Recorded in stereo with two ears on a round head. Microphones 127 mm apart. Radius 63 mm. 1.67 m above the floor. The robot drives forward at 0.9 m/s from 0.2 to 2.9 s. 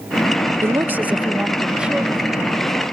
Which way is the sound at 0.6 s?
20° right (ahead or behind).